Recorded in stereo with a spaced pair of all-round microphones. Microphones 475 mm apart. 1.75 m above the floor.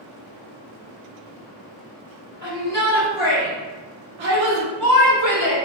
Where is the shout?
35° right (ahead or behind), 1.2 m; by 5.5 s 30° right (ahead or behind), 1.0 m.